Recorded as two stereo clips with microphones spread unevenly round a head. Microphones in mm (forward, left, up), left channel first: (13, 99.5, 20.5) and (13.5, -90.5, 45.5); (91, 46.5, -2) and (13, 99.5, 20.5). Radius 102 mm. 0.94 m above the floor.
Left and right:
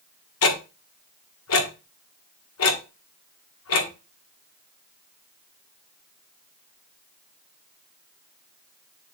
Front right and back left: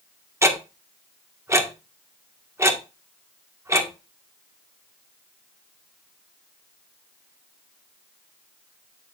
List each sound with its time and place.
0.4 s ticking: 85° left, 1.6 m